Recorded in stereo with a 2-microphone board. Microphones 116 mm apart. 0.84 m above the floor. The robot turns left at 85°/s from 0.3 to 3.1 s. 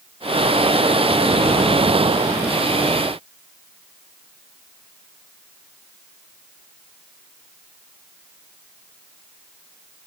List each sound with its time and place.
Only background noise.